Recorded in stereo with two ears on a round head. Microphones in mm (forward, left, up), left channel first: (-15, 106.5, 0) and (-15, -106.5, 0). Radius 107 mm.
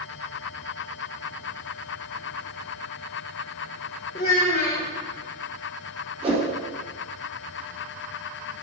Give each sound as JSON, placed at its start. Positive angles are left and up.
{"t": 4.2, "sound": "a child speaking", "side_deg": 30, "distance_m": 1.1}
{"t": 6.2, "sound": "a whoosh", "side_deg": -25, "distance_m": 2.5}